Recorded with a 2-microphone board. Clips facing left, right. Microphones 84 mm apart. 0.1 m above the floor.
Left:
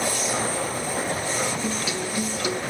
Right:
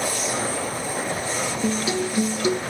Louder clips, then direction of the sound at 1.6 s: Right 4 dB; 30° right (ahead or behind).